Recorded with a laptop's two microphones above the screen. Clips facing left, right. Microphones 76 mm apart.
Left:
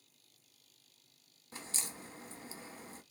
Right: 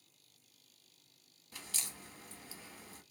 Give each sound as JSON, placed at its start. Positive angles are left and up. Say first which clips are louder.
{"t": 1.5, "sound": "a crack", "louder": "left 3 dB", "side_deg": 30, "distance_m": 0.7}